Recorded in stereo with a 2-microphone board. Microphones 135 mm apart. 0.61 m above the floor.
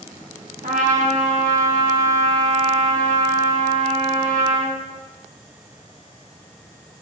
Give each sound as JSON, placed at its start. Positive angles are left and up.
{"t": 0.6, "sound": "a trumpet", "side_deg": -75, "distance_m": 5.0}